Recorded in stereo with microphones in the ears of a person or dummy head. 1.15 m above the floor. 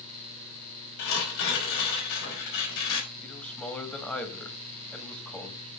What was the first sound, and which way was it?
Tearing paper, 70° left (ahead or behind).